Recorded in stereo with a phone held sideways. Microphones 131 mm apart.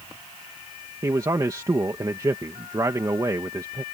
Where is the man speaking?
25° right (ahead or behind).